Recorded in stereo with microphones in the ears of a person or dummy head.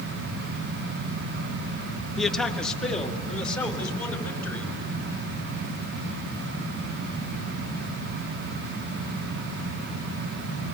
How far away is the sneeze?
No sneeze in this recording.